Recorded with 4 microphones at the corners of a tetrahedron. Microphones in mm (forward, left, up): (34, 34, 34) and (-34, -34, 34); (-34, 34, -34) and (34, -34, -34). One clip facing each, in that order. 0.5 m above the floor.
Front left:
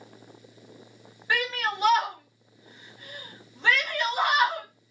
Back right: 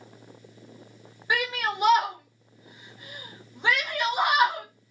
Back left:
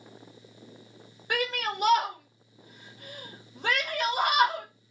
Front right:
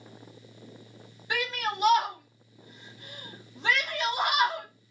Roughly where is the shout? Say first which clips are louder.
Back right 1 dB, back left 1 dB; behind left.